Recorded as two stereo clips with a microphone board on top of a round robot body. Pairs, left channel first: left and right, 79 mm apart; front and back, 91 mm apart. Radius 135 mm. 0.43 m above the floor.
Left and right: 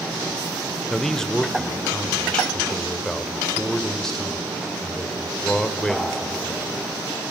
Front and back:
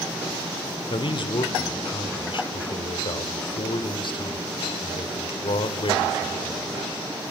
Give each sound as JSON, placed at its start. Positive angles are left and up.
{"t": 0.9, "sound": "a man speaking", "azimuth_deg": 5, "distance_m": 2.5}